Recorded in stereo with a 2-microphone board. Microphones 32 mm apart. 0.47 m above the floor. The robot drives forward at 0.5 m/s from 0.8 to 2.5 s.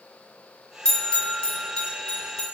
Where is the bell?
25° left (ahead or behind), 0.7 m.